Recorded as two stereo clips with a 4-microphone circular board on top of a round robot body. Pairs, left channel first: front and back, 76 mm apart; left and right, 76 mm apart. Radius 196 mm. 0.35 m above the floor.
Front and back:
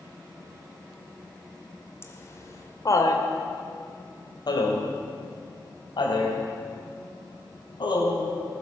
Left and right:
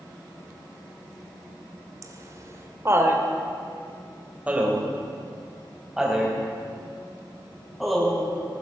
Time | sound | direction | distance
2.0 | laughter | 50° right | 2.5 m